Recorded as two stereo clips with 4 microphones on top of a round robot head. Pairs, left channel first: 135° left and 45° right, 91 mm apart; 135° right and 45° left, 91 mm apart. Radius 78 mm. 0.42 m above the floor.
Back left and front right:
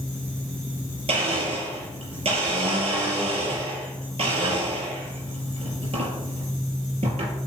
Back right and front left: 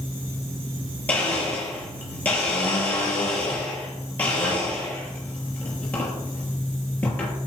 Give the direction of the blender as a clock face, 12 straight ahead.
2 o'clock.